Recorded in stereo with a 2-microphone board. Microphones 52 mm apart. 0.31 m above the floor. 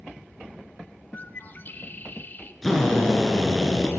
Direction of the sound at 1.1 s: 40° left (ahead or behind).